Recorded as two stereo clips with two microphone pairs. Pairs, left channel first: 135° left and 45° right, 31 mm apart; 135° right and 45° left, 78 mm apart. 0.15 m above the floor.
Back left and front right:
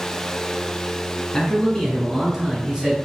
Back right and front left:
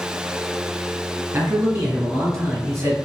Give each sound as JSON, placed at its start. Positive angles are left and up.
{"t": 1.3, "sound": "a man speaking", "azimuth_deg": 75, "distance_m": 1.7}